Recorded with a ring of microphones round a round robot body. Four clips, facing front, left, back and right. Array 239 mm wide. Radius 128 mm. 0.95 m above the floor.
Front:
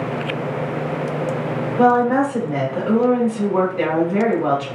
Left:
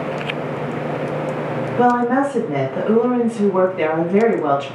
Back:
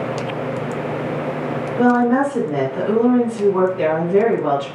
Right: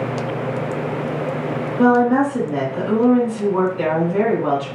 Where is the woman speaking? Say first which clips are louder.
Right 1 dB, even; 60° left, 1.7 m.